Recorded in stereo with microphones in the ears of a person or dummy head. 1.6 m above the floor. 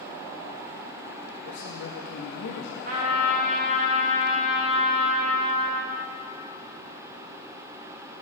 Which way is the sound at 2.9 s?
45° right (ahead or behind).